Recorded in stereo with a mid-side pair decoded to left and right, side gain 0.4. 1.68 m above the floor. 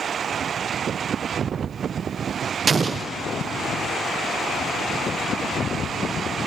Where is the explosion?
40° right, 0.5 m.